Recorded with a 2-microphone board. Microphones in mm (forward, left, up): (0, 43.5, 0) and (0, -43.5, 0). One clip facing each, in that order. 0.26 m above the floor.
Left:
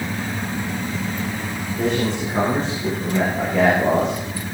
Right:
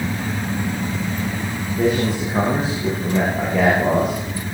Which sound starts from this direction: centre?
A man speaking, at 1.8 s.